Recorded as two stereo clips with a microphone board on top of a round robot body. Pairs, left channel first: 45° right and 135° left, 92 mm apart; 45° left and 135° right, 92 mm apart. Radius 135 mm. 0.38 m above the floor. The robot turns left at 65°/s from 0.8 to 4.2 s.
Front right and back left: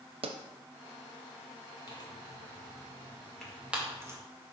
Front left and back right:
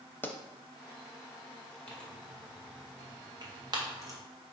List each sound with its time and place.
0.2 s a pop: 115° left, 0.5 m
1.9 s tearing paper: 30° right, 1.8 m; by 4.2 s straight behind, 1.8 m